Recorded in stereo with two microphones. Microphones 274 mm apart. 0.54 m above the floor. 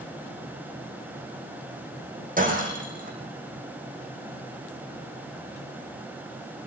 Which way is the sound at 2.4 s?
30° right (ahead or behind).